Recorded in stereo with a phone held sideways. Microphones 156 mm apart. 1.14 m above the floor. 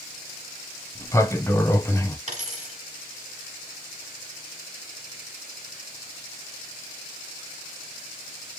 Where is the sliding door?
15° left (ahead or behind), 0.6 m.